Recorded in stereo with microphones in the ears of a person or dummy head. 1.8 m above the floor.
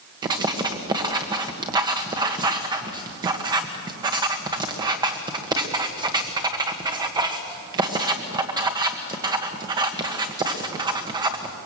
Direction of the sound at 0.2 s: 15° right (ahead or behind).